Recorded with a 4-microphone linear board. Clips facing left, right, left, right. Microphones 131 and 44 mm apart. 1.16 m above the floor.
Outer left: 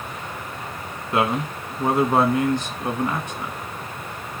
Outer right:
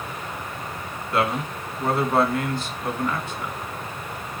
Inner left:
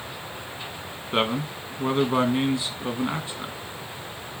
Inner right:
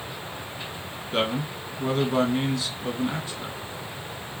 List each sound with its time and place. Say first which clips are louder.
1.1 s a man speaking: outer left 2 dB, inner left 1 dB; 20° left (ahead or behind), 1.1 m